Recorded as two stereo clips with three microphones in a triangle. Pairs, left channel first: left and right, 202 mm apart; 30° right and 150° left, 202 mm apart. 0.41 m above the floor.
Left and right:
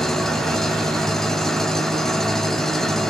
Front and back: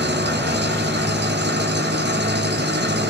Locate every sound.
0.0 s an engine running: straight behind, 1.8 m